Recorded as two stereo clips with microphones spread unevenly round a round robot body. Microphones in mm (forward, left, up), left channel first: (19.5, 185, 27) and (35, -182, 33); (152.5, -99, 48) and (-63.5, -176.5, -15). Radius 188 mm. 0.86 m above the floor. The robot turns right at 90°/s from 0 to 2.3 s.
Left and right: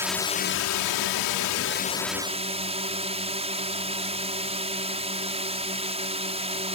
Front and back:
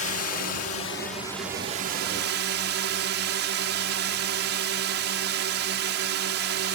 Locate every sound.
0.0 s a drone: 5° right; by 6.8 s 160° right